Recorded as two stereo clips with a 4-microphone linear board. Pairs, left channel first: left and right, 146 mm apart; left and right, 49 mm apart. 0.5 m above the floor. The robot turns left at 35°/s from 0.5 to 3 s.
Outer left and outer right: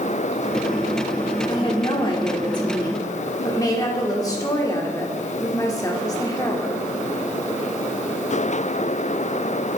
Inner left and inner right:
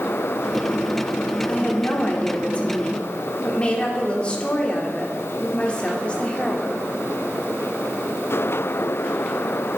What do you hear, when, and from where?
1.5 s a woman speaking: 105° left, 1.0 m; by 6.8 s 50° left, 1.0 m